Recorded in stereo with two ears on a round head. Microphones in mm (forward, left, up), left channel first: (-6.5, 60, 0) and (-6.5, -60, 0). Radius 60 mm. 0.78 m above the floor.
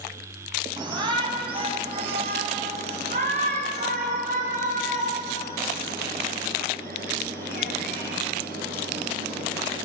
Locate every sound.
0.8 s a shout: 30° right (ahead or behind), 6 m; by 9.8 s 75° right (ahead or behind), 15.5 m